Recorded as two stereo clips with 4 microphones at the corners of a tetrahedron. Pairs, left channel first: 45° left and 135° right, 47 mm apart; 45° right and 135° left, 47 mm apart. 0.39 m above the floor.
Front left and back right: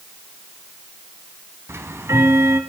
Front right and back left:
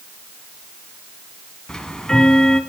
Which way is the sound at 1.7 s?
115° right.